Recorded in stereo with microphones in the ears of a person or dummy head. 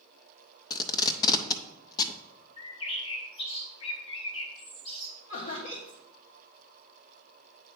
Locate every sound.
0.7 s tape being pulled: 25° left (ahead or behind), 0.5 m
2.6 s a bird: 35° left (ahead or behind), 1.5 m
5.3 s laughter: 50° left (ahead or behind), 1.5 m